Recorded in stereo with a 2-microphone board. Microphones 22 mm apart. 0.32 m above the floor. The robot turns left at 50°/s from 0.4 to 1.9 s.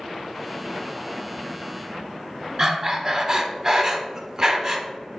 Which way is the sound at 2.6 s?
30° right (ahead or behind).